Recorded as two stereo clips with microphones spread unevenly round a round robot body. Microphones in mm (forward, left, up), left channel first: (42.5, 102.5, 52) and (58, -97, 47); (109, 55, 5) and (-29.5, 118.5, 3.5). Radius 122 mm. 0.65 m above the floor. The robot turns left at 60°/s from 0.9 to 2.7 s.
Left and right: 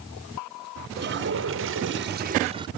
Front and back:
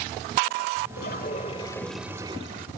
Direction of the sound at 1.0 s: 55° right.